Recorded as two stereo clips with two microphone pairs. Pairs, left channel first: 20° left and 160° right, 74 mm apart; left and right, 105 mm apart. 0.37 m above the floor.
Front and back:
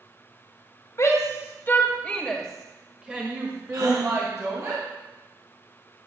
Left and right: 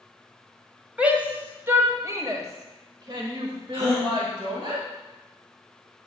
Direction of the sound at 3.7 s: 150° right.